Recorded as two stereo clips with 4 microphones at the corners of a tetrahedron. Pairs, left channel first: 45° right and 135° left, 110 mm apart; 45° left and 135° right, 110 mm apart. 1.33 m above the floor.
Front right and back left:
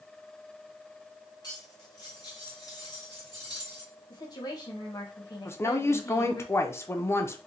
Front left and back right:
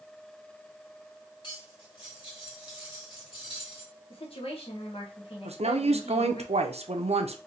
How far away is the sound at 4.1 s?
About 1.2 m.